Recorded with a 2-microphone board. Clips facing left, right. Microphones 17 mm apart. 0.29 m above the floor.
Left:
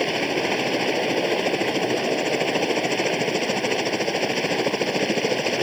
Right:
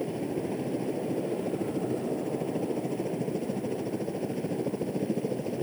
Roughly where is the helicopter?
Left.